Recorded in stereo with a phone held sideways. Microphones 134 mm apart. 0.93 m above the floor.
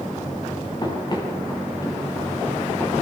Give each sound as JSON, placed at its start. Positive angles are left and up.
{"t": 0.8, "sound": "running footsteps", "side_deg": 35, "distance_m": 9.0}